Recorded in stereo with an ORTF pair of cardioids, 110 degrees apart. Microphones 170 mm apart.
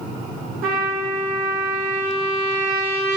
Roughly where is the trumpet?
Ahead right.